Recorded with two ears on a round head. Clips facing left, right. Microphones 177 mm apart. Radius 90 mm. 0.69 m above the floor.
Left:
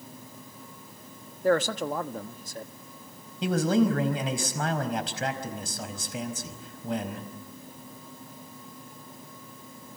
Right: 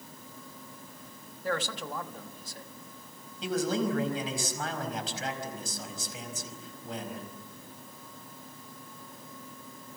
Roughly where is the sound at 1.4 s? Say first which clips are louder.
Left 9 dB; left.